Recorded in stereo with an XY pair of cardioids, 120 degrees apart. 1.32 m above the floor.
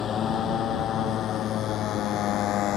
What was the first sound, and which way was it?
A motorcycle, 50° left.